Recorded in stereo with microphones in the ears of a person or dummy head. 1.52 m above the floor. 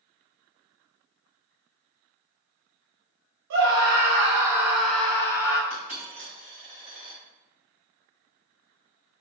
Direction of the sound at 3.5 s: 70° right (ahead or behind).